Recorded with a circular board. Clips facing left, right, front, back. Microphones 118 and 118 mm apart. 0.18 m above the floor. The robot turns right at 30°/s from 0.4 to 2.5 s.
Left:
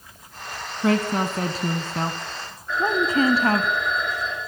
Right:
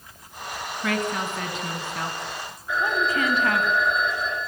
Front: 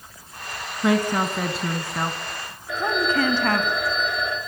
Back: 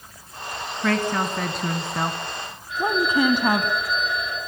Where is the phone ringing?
10° right, 9.5 m.